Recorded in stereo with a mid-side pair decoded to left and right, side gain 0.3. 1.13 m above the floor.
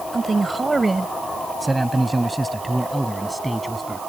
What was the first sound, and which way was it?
A man speaking, 40° right.